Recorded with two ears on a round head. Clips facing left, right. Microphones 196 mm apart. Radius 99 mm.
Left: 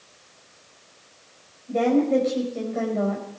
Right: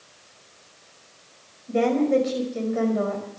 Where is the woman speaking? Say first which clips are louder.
Even; 15° right (ahead or behind), 5.5 m.